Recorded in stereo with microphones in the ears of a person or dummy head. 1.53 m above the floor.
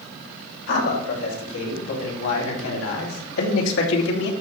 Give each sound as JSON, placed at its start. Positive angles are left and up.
{"t": 0.7, "sound": "a man speaking", "side_deg": 80, "distance_m": 5.0}